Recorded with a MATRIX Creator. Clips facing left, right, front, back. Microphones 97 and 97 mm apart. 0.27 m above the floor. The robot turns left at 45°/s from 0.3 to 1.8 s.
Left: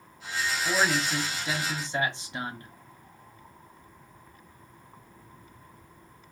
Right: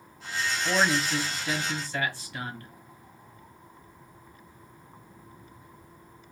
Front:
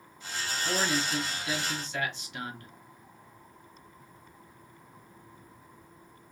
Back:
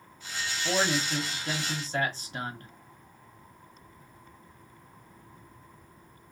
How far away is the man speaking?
About 1.3 m.